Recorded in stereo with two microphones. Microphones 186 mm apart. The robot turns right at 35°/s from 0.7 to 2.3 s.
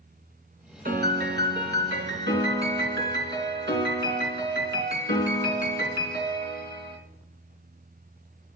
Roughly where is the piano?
Behind right.